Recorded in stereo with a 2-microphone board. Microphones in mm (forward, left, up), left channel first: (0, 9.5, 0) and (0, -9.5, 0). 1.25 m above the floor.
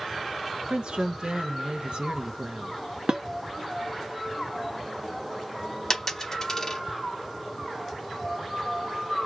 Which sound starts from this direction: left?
A dropped coin, at 5.9 s.